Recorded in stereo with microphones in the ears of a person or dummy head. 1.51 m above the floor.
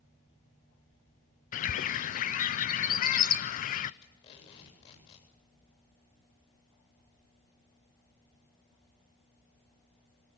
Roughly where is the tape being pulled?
Left.